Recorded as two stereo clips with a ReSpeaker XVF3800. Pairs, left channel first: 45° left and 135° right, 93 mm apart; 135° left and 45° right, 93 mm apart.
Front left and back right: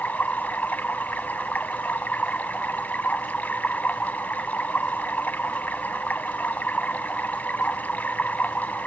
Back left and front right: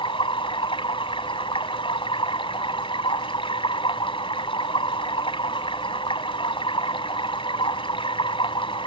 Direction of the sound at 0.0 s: 115° left.